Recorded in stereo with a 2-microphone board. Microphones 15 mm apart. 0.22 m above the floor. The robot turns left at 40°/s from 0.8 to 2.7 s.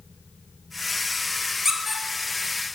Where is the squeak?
20° right (ahead or behind), 0.7 m; by 2.0 s 5° right (ahead or behind), 0.7 m.